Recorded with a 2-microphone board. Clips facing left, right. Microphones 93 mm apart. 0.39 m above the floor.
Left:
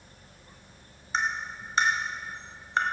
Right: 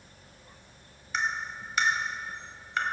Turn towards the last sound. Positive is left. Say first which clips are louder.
# left 1 dB
turn(degrees=30)  # may be behind; listen again after turning